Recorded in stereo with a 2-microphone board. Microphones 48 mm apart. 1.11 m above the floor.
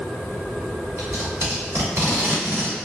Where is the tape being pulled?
65° right (ahead or behind), 1.2 m.